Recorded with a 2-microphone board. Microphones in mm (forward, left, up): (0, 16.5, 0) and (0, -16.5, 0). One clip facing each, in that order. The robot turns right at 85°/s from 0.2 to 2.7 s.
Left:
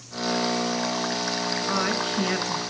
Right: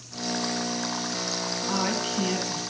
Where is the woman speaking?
25° left, 2.5 m; by 2.6 s 105° left, 2.5 m.